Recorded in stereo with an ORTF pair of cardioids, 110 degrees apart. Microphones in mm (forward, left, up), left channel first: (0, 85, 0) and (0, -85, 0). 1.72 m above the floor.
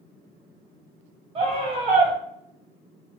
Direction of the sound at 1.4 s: 30° right.